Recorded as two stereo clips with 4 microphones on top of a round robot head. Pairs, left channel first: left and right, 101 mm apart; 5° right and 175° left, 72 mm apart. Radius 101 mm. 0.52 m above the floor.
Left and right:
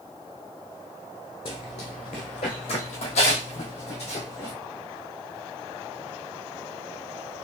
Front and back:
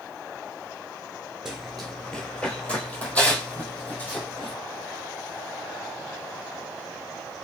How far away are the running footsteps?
About 0.5 m.